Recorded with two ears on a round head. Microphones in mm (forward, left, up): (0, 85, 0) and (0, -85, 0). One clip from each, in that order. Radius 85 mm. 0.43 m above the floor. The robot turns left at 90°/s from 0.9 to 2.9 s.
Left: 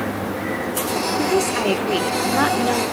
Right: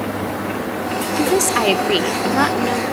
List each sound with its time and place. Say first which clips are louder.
1.2 s a woman speaking: right 5 dB; 25° right (ahead or behind), 1.0 m; by 2.8 s 10° left (ahead or behind), 1.0 m